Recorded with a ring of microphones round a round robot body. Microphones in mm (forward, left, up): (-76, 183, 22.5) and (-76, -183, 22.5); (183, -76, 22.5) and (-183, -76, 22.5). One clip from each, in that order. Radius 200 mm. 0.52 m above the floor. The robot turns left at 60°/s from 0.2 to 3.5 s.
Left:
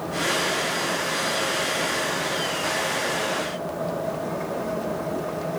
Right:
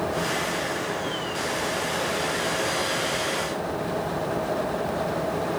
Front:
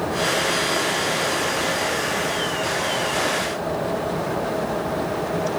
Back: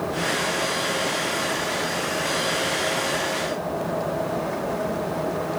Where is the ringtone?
No ringtone in this recording.